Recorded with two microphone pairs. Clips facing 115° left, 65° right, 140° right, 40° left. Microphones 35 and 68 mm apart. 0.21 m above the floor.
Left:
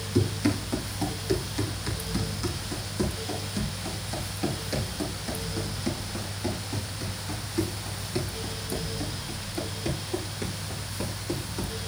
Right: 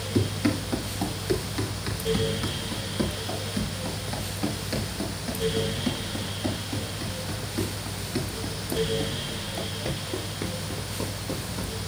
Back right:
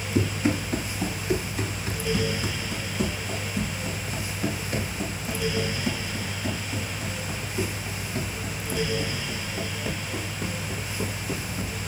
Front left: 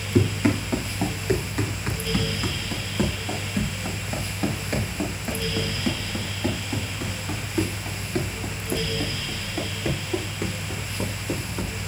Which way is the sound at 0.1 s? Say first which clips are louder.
Even, front left 3 dB; 10° left.